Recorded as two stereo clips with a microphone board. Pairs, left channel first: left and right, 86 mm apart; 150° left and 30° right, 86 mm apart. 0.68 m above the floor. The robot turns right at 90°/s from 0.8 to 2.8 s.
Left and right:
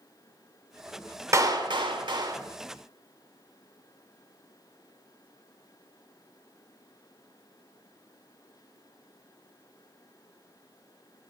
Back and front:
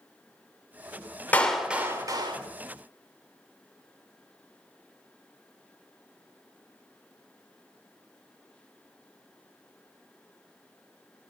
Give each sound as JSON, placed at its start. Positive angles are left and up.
{"t": 1.3, "sound": "a clap", "azimuth_deg": -140, "distance_m": 1.5}